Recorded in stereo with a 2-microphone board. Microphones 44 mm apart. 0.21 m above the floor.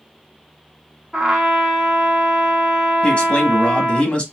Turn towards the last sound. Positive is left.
turn(degrees=25)  # may be behind; listen again after turning